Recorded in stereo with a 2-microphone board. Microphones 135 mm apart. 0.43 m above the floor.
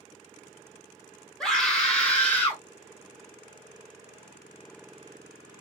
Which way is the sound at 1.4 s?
5° left (ahead or behind).